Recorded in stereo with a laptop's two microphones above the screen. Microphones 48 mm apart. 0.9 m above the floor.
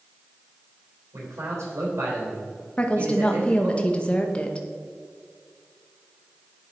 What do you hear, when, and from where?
1.1 s a man speaking: 80° right, 3 m
2.8 s a woman speaking: 25° left (ahead or behind), 0.7 m